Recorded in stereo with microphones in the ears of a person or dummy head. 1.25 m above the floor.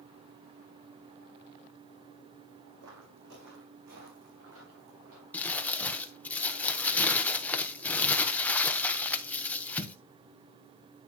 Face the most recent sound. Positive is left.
turn(degrees=10)  # may be behind; listen again after turning